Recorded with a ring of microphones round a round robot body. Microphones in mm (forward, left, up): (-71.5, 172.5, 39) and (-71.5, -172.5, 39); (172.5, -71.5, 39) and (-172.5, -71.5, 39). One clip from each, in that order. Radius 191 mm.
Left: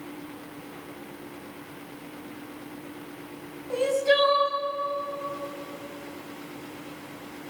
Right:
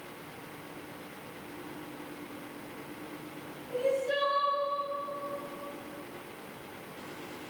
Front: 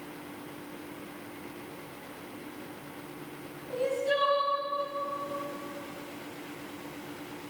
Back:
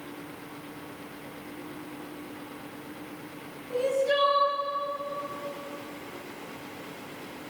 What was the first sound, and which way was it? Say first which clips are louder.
Crying: left 7 dB, back 3 dB; 95° left.